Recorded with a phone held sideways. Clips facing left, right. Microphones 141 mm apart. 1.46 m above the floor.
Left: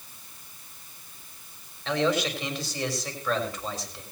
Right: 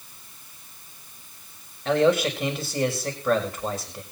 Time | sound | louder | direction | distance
1.9 | a man speaking | right 6 dB | 50° right (ahead or behind) | 5.5 m